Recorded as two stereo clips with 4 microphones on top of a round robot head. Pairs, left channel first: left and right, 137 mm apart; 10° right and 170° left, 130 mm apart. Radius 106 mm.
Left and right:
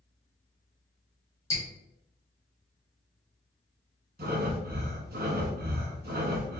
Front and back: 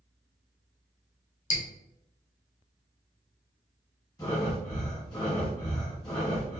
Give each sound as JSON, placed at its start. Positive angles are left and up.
{"t": 1.5, "sound": "dripping", "azimuth_deg": 15, "distance_m": 1.1}
{"t": 4.2, "sound": "breathing", "azimuth_deg": -75, "distance_m": 1.4}